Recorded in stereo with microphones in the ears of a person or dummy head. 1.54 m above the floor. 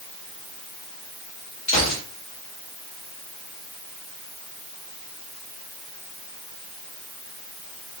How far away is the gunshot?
About 4.5 m.